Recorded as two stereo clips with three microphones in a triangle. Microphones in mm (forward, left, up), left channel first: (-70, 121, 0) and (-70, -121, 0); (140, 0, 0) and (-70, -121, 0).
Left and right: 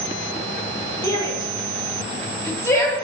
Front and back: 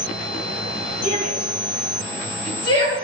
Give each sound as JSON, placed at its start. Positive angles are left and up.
{"t": 1.0, "sound": "a shout", "azimuth_deg": 15, "distance_m": 1.8}